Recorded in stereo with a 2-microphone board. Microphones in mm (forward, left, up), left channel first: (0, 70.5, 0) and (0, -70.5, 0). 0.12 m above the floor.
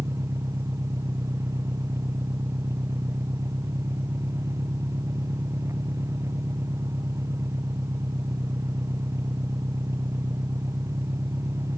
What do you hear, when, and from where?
0.0 s an engine running: 20° right (ahead or behind)